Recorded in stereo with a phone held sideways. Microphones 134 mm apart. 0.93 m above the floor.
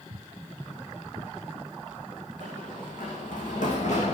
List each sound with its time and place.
0.1 s footsteps: 45° right (ahead or behind), 1.3 m; by 2.3 s 10° right (ahead or behind), 2 m
2.4 s running footsteps: 80° left, 4.5 m; by 4.2 s 60° left (ahead or behind), 3.5 m